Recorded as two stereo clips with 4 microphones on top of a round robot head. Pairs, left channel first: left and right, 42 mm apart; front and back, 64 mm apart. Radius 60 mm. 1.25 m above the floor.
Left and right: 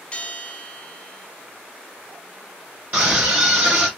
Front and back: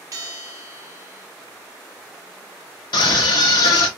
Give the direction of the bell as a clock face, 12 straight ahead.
7 o'clock.